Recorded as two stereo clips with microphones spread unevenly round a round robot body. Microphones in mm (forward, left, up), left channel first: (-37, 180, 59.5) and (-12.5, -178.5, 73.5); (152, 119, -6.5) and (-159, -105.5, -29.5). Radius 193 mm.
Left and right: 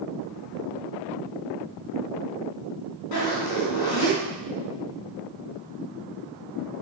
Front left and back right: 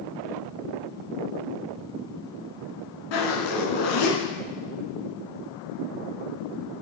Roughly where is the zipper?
Ahead left.